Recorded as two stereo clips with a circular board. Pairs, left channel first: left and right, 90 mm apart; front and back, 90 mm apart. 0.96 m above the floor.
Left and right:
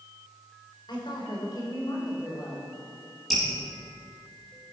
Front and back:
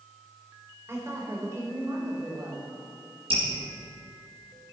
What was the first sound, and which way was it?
A woman speaking, 120° left.